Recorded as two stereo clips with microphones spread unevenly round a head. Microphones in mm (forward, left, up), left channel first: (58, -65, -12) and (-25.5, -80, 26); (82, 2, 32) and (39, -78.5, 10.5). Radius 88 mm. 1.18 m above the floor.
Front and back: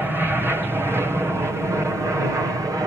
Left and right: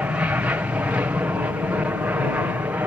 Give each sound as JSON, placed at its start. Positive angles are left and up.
{"t": 0.0, "sound": "an aircraft", "azimuth_deg": -80}